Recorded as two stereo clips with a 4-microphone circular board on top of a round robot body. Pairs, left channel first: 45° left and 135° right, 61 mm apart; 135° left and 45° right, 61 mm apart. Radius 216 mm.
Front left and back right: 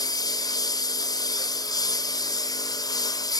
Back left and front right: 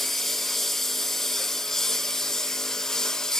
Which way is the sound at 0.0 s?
50° left.